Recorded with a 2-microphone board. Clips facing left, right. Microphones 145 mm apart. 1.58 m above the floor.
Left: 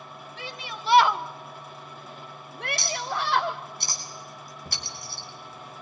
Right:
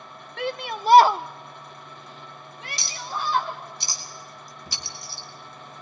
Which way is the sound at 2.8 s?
50° left (ahead or behind).